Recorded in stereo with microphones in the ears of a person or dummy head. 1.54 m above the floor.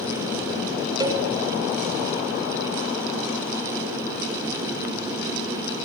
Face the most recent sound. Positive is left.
turn(degrees=-25)  # may be behind; listen again after turning